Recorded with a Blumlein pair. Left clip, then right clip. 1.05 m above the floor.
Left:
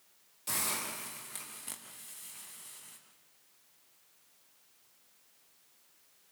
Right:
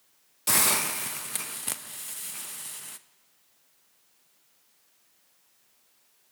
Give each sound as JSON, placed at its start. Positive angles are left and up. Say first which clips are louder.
{"t": 0.5, "sound": "a hiss", "louder": "right 11 dB", "azimuth_deg": -30, "distance_m": 0.8}